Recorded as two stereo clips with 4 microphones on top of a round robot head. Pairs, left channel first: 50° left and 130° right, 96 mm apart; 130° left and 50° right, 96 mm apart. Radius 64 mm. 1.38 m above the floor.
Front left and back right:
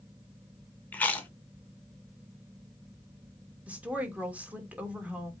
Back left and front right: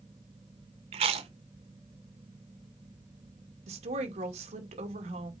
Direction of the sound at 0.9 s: 25° right.